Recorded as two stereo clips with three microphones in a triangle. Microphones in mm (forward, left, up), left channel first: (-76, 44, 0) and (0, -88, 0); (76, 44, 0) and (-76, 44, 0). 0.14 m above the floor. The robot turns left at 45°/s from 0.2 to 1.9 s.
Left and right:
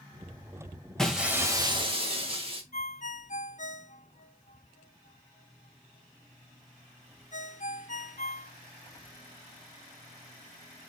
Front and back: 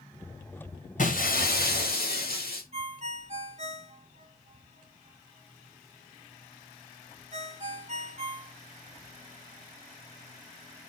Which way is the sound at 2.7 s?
140° left.